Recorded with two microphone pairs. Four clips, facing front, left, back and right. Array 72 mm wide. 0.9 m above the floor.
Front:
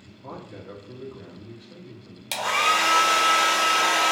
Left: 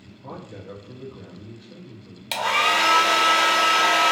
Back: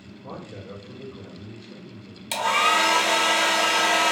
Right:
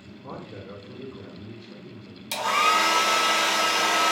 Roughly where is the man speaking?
Ahead left.